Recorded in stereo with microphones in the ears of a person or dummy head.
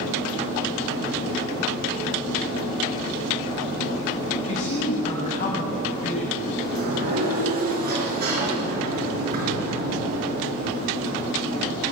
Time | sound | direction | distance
4.4 | a man speaking | 40° left (ahead or behind) | 6 m
6.7 | a sliding door | 50° right (ahead or behind) | 5 m